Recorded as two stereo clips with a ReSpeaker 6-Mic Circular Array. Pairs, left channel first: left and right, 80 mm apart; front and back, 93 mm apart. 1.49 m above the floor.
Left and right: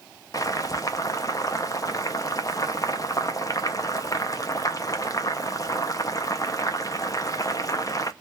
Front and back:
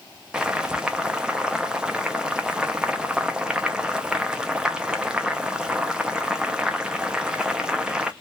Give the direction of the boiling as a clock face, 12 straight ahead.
9 o'clock.